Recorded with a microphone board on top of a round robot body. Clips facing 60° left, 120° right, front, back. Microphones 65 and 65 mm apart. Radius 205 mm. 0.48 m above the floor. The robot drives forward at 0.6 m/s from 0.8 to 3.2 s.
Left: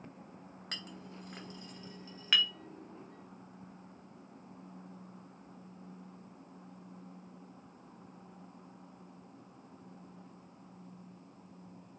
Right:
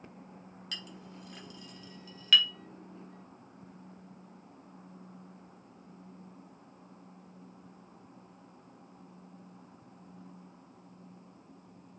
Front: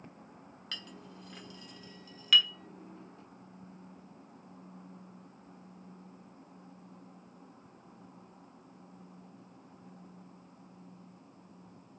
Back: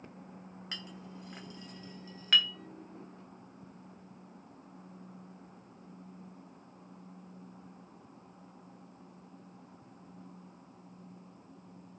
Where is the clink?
110° left, 3 m; by 2.5 s 125° left, 3.5 m.